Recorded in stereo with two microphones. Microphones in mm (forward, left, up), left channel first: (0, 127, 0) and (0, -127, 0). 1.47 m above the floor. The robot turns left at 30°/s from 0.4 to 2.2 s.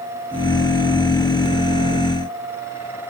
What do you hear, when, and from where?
Only background noise.